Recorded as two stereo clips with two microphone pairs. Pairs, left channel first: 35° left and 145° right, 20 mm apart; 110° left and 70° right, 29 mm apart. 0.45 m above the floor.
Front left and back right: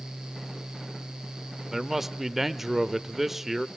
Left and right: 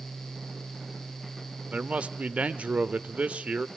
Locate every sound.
1.7 s a man speaking: 75° right, 1.1 m